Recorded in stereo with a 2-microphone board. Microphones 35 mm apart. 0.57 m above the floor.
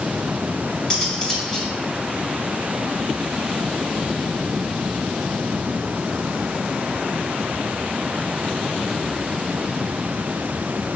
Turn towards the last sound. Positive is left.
turn(degrees=25)  # may be behind; listen again after turning